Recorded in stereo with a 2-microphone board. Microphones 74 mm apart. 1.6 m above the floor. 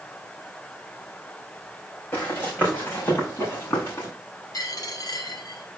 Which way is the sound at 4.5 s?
55° left (ahead or behind).